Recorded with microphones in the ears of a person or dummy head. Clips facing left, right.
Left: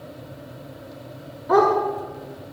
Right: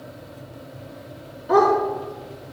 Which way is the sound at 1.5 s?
10° right (ahead or behind).